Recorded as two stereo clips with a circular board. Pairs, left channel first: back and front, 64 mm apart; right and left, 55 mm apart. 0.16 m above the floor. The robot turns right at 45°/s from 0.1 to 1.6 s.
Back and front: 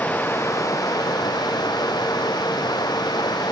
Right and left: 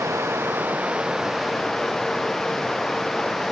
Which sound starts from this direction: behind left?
Running water, at 0.0 s.